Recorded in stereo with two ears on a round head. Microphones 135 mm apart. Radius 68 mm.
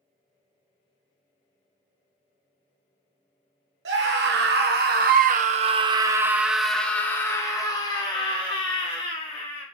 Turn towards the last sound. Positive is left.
turn(degrees=40)  # may be behind; listen again after turning